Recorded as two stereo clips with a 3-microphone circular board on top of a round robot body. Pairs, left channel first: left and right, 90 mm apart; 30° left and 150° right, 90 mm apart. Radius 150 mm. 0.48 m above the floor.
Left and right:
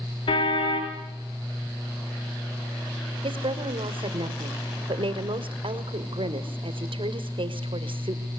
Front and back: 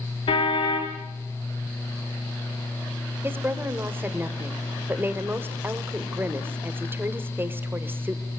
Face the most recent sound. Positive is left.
turn(degrees=-85)